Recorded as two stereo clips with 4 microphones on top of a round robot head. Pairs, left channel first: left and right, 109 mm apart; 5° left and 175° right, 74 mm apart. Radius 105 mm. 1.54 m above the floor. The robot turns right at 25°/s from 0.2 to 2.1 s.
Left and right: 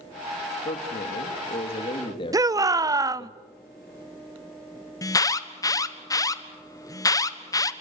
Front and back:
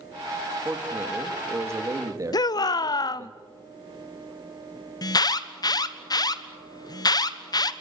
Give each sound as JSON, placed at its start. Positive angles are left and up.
{"t": 0.7, "sound": "a man speaking", "azimuth_deg": 105, "distance_m": 3.0}
{"t": 2.3, "sound": "a shout", "azimuth_deg": -30, "distance_m": 0.8}
{"t": 5.0, "sound": "an alarm", "azimuth_deg": 30, "distance_m": 1.4}